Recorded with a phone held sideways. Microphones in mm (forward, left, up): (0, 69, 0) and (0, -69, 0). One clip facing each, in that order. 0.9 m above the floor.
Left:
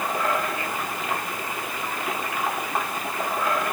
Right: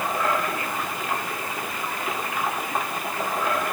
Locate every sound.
Only background noise.